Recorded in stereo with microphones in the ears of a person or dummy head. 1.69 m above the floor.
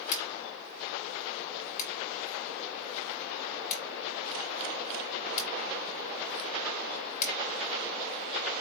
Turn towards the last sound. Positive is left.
turn(degrees=40)  # may be behind; listen again after turning